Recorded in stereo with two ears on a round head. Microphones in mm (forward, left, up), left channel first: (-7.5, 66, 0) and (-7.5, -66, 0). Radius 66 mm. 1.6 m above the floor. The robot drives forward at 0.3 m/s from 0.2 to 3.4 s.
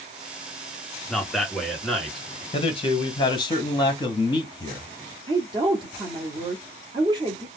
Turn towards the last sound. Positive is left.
turn(degrees=-30)  # may be behind; listen again after turning